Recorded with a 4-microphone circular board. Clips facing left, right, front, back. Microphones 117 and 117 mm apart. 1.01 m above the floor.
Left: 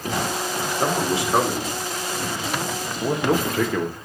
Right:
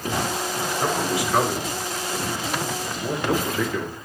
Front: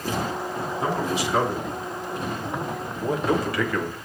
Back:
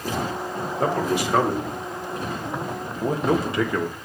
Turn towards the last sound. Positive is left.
turn(degrees=105)